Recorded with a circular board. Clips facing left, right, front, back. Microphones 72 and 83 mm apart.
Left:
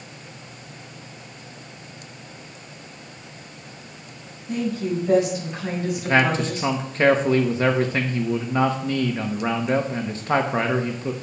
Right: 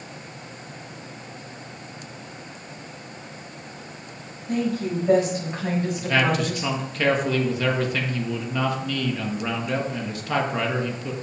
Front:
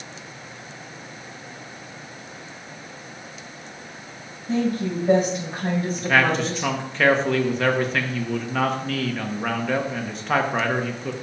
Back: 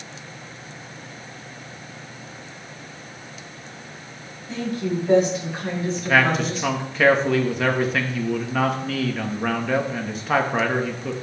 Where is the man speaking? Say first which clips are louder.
Left 4 dB, back 1 dB; 100° left, 1.1 m.